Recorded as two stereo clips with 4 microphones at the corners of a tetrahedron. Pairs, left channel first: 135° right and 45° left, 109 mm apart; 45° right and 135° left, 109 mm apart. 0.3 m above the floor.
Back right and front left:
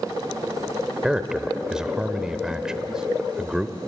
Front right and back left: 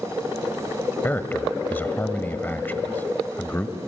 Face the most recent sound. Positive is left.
turn(degrees=-25)